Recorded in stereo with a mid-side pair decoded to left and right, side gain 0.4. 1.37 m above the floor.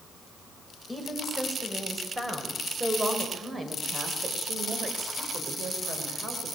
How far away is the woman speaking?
About 7 m.